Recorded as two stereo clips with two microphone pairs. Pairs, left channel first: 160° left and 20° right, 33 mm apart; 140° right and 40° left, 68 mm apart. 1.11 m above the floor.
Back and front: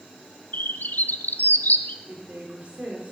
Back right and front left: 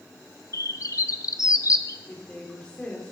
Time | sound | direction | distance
0.5 | a bird | straight behind | 0.6 m
2.0 | a woman speaking | 65° right | 4 m